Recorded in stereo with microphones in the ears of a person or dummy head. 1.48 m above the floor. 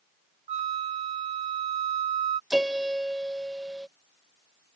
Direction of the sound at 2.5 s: 5° right (ahead or behind).